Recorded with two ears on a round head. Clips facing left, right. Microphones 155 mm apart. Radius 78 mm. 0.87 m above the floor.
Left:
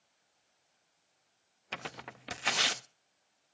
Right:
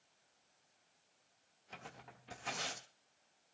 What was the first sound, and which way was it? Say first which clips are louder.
Tearing paper: left 9 dB; 80° left.